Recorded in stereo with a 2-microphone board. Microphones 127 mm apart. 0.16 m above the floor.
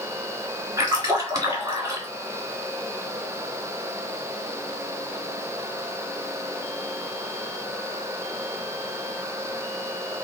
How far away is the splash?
About 1.6 m.